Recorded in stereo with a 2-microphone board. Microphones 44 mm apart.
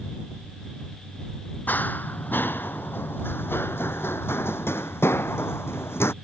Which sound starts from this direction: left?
Running footsteps, at 1.7 s.